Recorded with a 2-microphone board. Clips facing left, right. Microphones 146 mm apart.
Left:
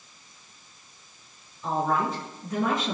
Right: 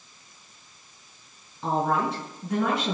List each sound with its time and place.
1.6 s a woman speaking: 75° right (ahead or behind), 6.5 m; by 3.0 s 65° right (ahead or behind), 7 m